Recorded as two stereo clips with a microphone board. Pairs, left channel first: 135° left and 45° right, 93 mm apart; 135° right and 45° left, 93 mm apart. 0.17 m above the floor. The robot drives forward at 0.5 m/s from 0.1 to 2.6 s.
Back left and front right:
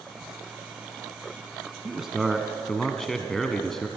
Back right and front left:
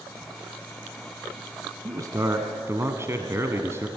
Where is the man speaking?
35° left, 1.4 m; by 3.9 s 55° left, 1.3 m.